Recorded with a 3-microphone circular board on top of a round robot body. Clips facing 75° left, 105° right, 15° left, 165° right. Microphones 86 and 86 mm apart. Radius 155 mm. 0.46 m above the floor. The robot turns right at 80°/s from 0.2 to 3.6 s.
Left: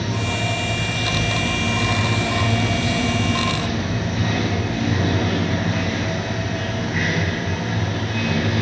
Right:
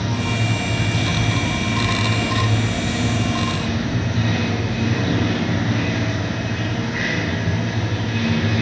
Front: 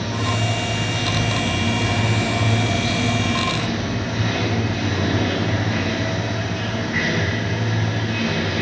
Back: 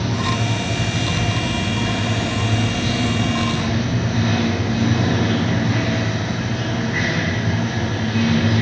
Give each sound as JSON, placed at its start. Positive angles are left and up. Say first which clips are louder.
{"t": 0.0, "sound": "running water", "louder": "right 1 dB, back 2 dB", "azimuth_deg": -140, "distance_m": 1.1}